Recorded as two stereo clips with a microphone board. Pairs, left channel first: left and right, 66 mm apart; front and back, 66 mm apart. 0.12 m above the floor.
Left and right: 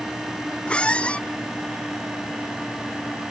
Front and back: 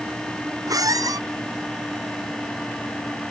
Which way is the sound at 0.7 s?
165° left.